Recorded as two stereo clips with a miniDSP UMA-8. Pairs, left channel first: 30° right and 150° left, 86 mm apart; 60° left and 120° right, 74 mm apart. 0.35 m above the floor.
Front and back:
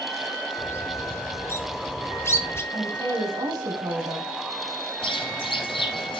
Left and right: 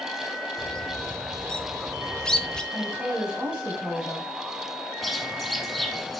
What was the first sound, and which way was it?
A bird, 15° right.